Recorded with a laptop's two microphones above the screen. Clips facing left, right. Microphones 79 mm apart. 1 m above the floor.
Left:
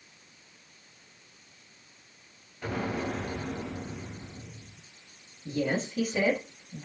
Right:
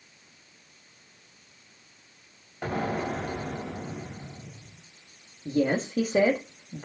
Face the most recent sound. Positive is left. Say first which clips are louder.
# right 4 dB
turn(degrees=-50)  # may be behind; listen again after turning